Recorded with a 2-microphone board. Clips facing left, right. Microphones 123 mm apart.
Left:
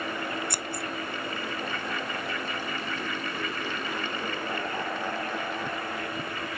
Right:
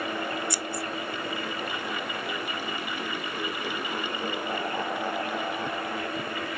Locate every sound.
0.5 s scissors: 55° left (ahead or behind)